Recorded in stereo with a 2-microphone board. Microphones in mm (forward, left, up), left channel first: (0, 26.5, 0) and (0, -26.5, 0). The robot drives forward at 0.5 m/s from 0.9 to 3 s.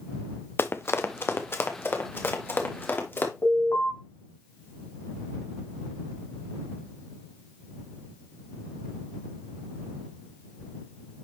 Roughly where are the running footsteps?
Left.